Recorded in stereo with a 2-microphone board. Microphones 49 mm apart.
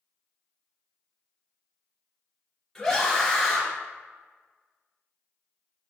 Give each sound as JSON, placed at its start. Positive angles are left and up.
{"t": 2.8, "sound": "a scream", "side_deg": 10, "distance_m": 1.1}